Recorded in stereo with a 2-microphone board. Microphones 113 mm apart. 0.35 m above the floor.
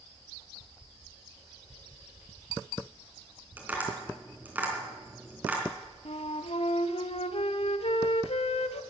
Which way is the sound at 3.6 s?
15° right (ahead or behind).